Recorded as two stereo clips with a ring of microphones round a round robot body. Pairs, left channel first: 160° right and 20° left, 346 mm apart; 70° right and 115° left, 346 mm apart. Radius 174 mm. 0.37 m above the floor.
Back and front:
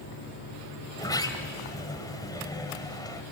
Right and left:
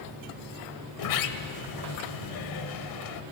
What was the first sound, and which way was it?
A sliding door, 80° right.